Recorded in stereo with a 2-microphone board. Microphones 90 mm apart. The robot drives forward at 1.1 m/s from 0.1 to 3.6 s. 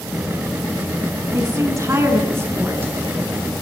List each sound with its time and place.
1.3 s a woman speaking: 35° right (ahead or behind), 1.9 m; by 2.9 s 25° right (ahead or behind), 3 m